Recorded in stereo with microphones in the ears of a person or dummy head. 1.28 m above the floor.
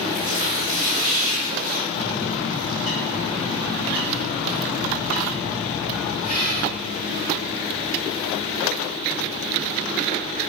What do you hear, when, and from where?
0.1 s tearing paper: 35° left (ahead or behind), 1.1 m
1.9 s a bird: 35° left (ahead or behind), 0.8 m